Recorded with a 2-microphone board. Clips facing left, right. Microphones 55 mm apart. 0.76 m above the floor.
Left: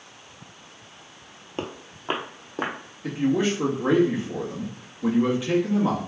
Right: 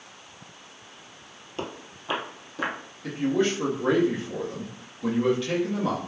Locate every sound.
1.6 s footsteps: 30° left (ahead or behind), 0.9 m; by 2.8 s 45° left (ahead or behind), 1.4 m
3.0 s a man speaking: 15° left (ahead or behind), 1.3 m